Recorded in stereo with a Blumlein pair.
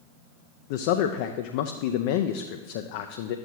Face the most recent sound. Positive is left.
turn(degrees=50)